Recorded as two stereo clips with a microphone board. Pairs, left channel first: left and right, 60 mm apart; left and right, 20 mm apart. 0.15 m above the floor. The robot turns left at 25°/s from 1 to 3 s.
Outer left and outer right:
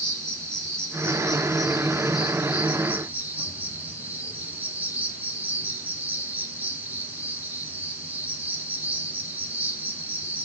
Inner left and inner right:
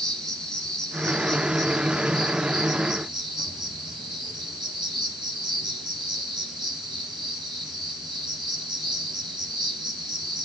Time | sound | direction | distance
0.0 | an insect | 15° left | 5 m